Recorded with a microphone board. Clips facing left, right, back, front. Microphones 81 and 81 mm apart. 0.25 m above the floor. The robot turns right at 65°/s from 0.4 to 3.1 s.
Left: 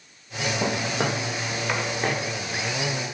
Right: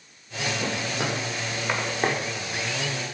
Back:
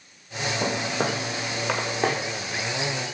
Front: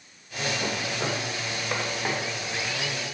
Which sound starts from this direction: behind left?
Footsteps, at 0.6 s.